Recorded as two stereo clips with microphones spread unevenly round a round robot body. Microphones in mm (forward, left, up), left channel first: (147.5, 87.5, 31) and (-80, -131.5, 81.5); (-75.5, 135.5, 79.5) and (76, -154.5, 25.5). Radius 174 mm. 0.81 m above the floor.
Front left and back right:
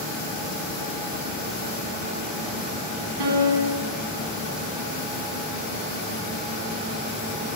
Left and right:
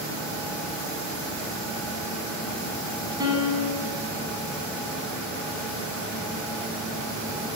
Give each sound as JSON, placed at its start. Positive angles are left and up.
{"t": 3.2, "sound": "a piano", "azimuth_deg": -140, "distance_m": 7.5}